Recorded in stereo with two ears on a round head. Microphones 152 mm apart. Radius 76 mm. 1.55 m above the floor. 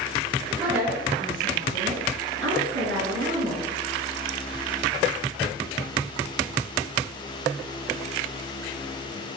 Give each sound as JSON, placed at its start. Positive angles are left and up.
{"t": 0.6, "sound": "a woman speaking", "side_deg": -10, "distance_m": 1.4}